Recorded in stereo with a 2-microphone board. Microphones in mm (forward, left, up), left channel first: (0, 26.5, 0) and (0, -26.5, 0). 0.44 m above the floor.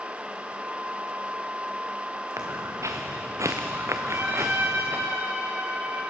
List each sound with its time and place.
2.4 s footsteps: 70° right (ahead or behind), 2.5 m; by 5.1 s 40° right (ahead or behind), 2.5 m
4.1 s a trumpet: 75° right (ahead or behind), 8.5 m